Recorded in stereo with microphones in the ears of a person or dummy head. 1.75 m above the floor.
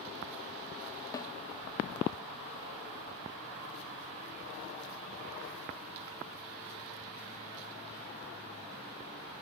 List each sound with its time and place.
1.1 s a snare drum: 20° left (ahead or behind), 1.6 m